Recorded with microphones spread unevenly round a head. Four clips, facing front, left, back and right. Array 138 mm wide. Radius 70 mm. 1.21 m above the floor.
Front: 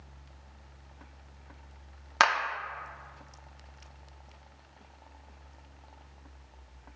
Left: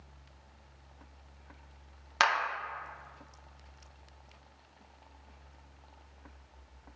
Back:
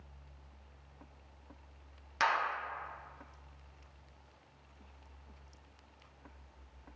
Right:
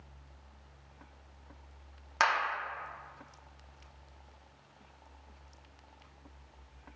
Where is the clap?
10° left, 0.6 m.